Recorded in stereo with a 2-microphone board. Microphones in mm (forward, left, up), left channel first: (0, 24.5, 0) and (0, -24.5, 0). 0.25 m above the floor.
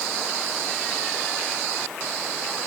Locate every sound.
Only background noise.